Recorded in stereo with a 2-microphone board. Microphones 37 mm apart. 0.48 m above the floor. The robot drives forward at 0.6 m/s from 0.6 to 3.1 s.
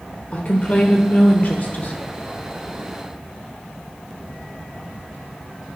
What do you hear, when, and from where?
0.3 s a woman speaking: 35° left (ahead or behind), 1.2 m; by 1.9 s 45° left (ahead or behind), 0.9 m